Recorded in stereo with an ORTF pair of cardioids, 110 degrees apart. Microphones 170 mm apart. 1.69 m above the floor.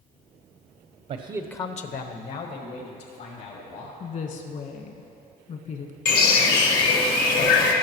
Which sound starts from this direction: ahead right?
A man speaking, at 1.1 s.